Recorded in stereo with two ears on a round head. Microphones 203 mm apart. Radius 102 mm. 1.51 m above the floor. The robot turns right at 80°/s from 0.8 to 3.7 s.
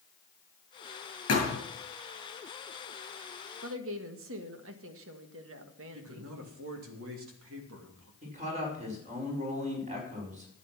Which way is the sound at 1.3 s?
70° left (ahead or behind).